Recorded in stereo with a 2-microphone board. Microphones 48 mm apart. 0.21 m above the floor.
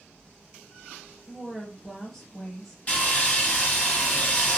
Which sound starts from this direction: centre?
A woman speaking, at 1.3 s.